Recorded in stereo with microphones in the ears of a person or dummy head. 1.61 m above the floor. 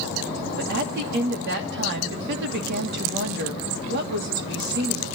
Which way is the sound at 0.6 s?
60° right (ahead or behind).